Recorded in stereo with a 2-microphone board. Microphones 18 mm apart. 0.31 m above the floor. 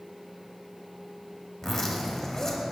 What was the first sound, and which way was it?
A zipper, 15° left (ahead or behind).